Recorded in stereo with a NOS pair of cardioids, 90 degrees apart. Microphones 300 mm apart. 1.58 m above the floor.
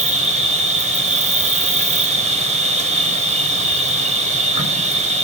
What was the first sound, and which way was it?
An insect, 25° right.